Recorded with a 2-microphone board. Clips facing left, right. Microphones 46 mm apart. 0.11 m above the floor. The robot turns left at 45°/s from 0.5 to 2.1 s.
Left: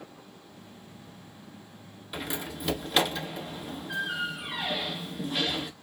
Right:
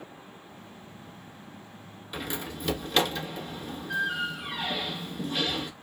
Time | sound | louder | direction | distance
2.1 | a door slam | even | 5° left (ahead or behind) | 0.8 m